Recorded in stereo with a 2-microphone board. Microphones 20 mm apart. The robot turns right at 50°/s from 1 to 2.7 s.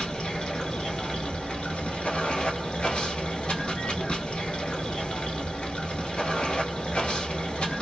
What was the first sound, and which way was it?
Running water, 40° left.